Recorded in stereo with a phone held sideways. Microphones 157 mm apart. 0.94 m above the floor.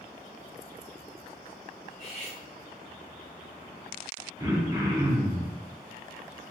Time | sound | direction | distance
1.9 | cutlery clinking | 5° left (ahead or behind) | 1.6 m
4.4 | throat clearing | 20° right (ahead or behind) | 0.6 m